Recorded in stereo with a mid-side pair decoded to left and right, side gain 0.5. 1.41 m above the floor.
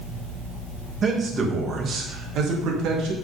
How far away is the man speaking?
About 2.0 m.